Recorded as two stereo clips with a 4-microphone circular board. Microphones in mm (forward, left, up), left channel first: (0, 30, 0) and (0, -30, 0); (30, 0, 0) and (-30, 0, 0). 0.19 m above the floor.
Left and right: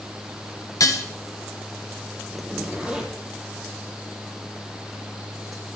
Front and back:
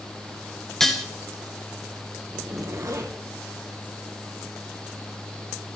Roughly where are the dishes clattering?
Left.